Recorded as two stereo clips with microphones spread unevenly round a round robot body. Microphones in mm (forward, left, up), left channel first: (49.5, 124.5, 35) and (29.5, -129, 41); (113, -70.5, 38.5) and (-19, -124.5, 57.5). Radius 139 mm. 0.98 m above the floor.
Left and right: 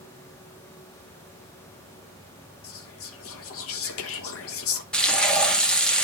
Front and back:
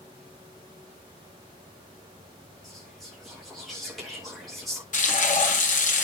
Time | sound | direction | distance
2.6 | whispering | 110° left | 1.2 m
4.9 | frying | straight ahead | 2 m